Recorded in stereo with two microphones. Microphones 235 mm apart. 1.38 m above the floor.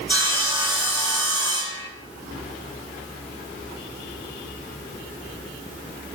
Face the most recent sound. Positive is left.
turn(degrees=-20)  # may be behind; listen again after turning